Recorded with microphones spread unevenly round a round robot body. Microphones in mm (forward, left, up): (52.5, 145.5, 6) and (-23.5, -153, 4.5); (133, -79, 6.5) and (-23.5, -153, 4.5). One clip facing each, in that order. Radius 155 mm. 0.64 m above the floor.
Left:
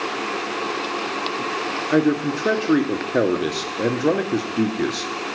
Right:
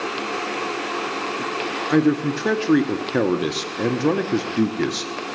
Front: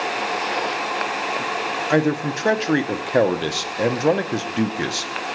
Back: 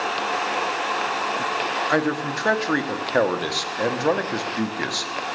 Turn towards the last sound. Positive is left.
turn(degrees=-35)